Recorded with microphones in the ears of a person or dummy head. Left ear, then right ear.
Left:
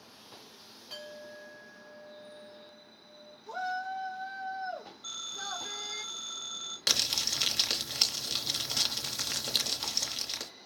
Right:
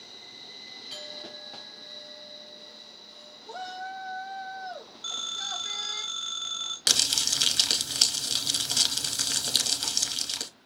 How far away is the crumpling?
About 0.8 m.